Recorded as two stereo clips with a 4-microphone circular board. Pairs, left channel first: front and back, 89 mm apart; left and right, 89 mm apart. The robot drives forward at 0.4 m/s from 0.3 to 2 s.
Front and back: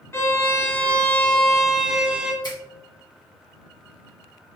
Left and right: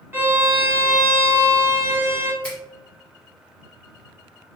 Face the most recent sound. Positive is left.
turn(degrees=15)